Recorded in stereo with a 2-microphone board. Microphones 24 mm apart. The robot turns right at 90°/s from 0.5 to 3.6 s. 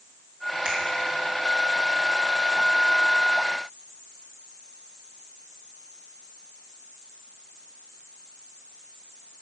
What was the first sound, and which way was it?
A finger snap, 45° right (ahead or behind).